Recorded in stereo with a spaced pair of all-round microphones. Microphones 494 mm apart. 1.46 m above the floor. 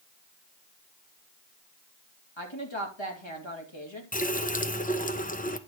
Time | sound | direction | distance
2.4 | a woman speaking | 65° left (ahead or behind) | 2.5 m
4.1 | a running tap | 15° left (ahead or behind) | 0.7 m